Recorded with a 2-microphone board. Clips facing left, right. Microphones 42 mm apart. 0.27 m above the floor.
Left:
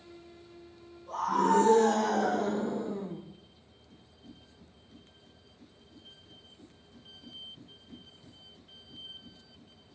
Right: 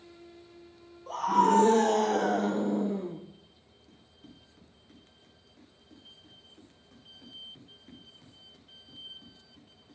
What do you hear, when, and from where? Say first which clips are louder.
1.1 s a scream: right 3 dB; 75° right (ahead or behind), 7.5 m; by 3.2 s 80° right, 8 m
3.9 s running footsteps: left 1 dB; 75° right (ahead or behind), 7.5 m